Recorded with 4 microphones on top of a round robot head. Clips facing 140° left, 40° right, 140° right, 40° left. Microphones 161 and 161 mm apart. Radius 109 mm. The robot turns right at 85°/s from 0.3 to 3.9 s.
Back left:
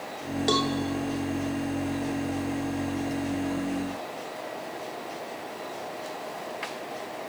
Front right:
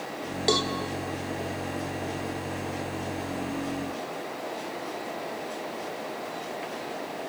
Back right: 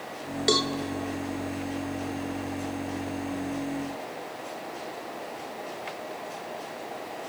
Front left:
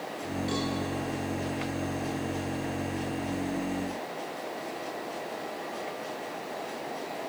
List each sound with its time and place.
0.5 s a cowbell: 125° right, 0.9 m; by 0.7 s 105° right, 0.9 m